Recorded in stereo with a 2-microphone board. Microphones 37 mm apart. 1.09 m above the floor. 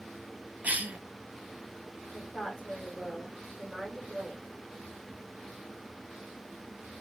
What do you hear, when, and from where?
0.6 s a cough: 45° right (ahead or behind), 0.8 m
2.1 s a woman speaking: 10° left (ahead or behind), 1.8 m